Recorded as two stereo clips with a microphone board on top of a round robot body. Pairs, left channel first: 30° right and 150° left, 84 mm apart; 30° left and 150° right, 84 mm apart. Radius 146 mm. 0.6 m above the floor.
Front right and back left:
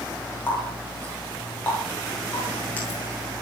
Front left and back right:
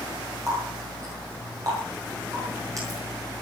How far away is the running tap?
About 9 m.